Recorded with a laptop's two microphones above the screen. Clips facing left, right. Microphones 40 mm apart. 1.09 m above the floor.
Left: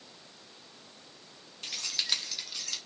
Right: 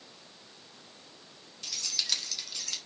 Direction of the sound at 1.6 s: 35° left (ahead or behind).